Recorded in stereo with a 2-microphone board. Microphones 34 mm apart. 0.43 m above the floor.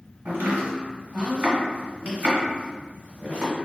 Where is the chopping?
60° right (ahead or behind), 1.3 m.